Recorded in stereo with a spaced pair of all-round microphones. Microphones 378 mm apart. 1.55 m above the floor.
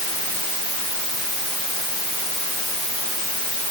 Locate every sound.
Only background noise.